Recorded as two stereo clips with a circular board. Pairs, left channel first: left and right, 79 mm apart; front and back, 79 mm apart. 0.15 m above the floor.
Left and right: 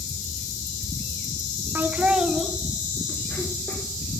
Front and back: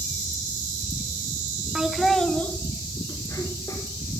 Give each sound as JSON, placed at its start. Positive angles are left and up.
{"t": 1.8, "sound": "laughter", "azimuth_deg": -110, "distance_m": 1.2}